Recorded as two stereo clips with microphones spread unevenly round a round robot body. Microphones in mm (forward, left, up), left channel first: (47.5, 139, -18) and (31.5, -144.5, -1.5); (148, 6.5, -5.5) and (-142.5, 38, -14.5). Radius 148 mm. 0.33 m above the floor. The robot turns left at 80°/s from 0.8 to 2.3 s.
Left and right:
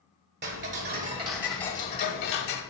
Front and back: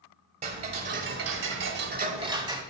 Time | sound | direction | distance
0.4 | ticking | 130° right | 0.6 m